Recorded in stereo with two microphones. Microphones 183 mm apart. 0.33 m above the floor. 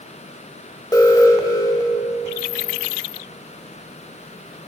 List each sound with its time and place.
0.9 s an alarm: 20° left (ahead or behind), 1.0 m